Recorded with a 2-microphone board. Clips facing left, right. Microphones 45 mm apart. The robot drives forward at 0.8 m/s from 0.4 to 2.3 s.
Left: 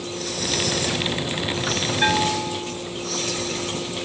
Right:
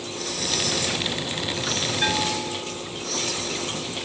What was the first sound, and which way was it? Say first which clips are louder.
A bell: left 5 dB; 20° left (ahead or behind).